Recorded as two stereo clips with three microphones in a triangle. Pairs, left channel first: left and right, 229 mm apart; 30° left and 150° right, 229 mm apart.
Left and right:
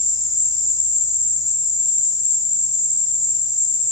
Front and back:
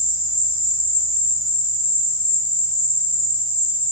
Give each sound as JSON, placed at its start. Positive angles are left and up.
{"t": 0.0, "sound": "an insect", "azimuth_deg": -175, "distance_m": 1.5}